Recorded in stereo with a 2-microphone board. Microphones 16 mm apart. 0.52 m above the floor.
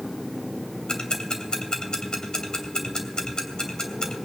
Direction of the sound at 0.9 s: 60° left (ahead or behind).